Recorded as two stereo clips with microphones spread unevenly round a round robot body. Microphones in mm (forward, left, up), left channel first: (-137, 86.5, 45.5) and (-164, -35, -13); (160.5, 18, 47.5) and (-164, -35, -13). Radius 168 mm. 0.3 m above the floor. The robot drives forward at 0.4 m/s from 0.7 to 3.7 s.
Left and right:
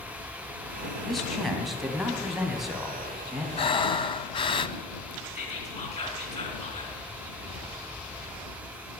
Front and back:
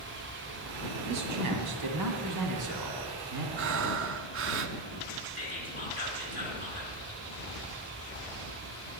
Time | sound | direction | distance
1.1 | a man speaking | 175° right | 1.9 m
3.6 | breathing | 130° left | 0.5 m
5.3 | whispering | 120° left | 3 m